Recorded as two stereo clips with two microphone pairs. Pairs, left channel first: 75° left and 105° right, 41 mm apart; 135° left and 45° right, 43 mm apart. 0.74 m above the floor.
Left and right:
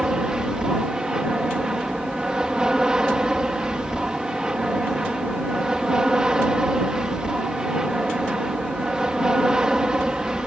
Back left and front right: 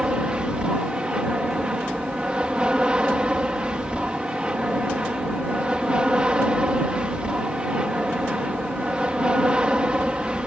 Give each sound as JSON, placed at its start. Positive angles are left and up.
{"t": 0.0, "sound": "an aircraft", "azimuth_deg": -60}